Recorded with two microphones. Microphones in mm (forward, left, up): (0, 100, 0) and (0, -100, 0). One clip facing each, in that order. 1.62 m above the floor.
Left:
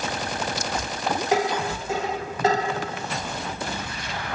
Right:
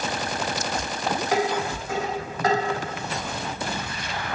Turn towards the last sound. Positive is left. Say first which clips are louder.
# even
turn(degrees=25)  # may be behind; listen again after turning